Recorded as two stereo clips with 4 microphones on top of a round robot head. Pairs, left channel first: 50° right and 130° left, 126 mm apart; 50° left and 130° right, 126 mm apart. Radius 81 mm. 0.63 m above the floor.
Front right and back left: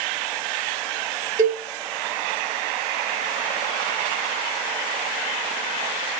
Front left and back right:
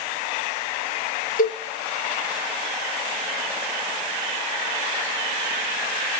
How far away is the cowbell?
About 1.2 m.